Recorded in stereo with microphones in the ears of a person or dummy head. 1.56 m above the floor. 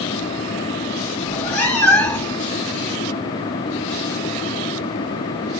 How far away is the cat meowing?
About 1.1 m.